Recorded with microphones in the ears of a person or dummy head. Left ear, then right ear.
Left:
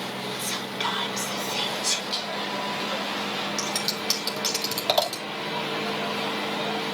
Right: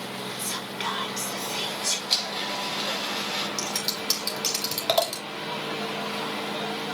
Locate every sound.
0.4 s whispering: centre (ahead or behind), 4 m
2.1 s a blender: 55° right (ahead or behind), 4.5 m
3.6 s scissors: 5° right (ahead or behind), 3 m